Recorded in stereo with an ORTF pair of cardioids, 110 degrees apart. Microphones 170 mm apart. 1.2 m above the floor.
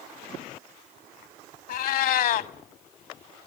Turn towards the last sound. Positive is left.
turn(degrees=65)